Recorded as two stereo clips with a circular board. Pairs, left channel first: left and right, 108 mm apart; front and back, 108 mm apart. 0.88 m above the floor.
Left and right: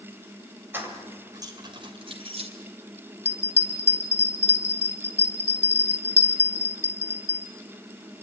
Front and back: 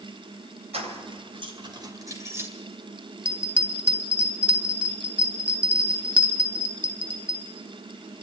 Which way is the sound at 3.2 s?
105° left.